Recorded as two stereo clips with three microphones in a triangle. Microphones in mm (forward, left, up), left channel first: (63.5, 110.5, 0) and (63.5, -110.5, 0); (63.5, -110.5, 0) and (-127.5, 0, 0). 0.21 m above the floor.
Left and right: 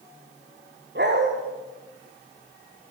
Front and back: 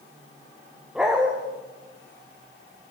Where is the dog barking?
125° right, 5.5 m.